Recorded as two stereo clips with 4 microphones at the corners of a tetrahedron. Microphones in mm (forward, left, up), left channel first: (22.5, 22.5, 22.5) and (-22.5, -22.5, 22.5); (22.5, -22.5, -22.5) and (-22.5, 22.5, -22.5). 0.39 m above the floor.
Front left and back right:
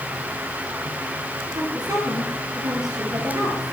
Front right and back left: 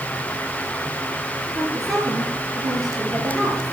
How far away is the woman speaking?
About 6.5 m.